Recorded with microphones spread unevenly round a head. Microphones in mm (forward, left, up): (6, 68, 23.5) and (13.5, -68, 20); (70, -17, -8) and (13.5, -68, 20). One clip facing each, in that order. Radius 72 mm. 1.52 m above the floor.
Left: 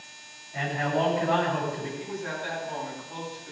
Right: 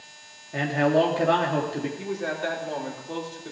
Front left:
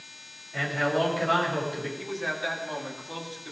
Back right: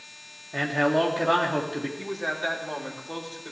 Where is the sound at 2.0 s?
85° right, 5 m.